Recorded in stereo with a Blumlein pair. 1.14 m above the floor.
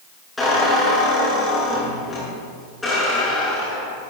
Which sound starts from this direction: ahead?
A squeak, at 0.4 s.